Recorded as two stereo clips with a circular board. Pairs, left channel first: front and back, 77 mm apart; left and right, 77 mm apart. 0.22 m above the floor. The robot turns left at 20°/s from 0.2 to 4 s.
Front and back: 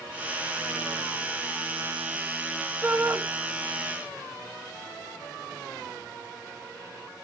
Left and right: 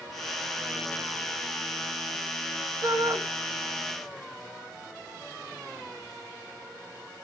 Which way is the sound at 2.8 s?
120° right.